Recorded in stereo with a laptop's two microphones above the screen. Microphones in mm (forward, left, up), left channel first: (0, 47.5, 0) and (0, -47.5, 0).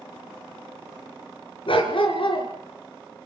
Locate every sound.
1.7 s a dog barking: 65° left (ahead or behind), 4 m